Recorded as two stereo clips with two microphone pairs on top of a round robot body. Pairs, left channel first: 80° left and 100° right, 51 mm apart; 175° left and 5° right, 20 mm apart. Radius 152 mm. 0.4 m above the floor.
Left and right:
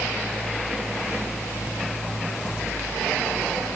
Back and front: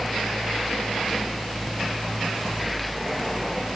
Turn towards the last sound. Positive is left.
No sound to turn to.